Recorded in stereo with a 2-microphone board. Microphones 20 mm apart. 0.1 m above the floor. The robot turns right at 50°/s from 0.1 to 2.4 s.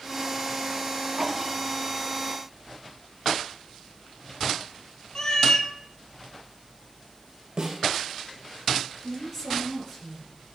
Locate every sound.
5.2 s a cat meowing: 30° left (ahead or behind), 0.7 m
7.6 s a snare drum: 40° right (ahead or behind), 2 m
9.0 s a woman speaking: 15° left (ahead or behind), 1.8 m